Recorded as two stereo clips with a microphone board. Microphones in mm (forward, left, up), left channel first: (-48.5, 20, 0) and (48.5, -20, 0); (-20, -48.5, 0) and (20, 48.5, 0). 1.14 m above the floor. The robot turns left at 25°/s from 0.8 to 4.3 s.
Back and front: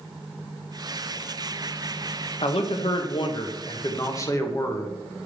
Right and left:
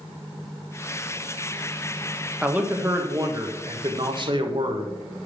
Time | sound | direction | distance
2.4 | a man speaking | 145° left | 1.3 m